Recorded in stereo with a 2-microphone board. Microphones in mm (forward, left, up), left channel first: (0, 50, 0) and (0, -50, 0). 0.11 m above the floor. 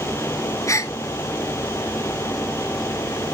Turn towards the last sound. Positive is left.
turn(degrees=30)  # may be behind; listen again after turning